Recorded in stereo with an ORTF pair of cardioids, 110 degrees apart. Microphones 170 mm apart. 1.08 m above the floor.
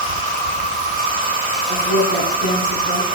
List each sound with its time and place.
0.0 s an insect: 55° right, 1.7 m
1.7 s a woman speaking: 45° right, 8 m